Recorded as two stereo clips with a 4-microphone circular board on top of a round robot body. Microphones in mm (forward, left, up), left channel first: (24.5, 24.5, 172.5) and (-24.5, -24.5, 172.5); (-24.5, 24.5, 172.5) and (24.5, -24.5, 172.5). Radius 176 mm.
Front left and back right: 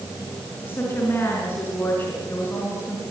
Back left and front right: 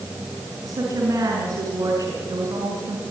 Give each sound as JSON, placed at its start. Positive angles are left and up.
{"t": 0.6, "sound": "a woman speaking", "azimuth_deg": -10, "distance_m": 5.0}